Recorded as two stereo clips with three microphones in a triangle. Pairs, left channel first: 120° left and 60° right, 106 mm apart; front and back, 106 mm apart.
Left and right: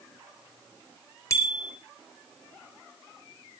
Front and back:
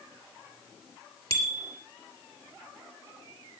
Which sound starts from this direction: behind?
A bicycle bell, at 1.3 s.